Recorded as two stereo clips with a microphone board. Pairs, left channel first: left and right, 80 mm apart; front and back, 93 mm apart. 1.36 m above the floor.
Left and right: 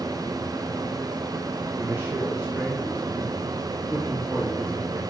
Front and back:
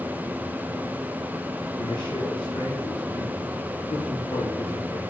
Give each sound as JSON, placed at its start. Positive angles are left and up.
{"t": 1.8, "sound": "a man speaking", "azimuth_deg": -20, "distance_m": 2.5}